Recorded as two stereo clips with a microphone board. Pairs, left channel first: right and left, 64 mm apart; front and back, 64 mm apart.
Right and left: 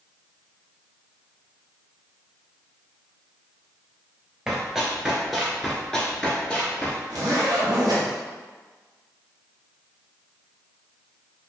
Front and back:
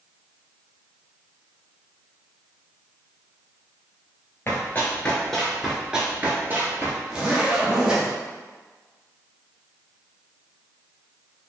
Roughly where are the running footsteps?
Ahead left.